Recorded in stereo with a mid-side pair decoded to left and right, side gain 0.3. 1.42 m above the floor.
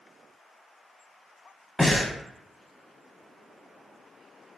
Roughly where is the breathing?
Ahead.